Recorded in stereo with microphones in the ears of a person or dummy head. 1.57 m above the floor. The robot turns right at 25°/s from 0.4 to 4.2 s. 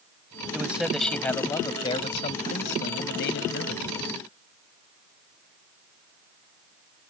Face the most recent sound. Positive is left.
turn(degrees=85)